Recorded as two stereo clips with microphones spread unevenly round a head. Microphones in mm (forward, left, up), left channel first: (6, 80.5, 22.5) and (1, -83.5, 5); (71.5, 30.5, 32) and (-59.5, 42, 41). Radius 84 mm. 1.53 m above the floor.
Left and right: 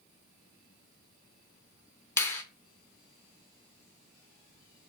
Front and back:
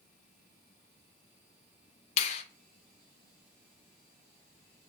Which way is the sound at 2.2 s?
20° left.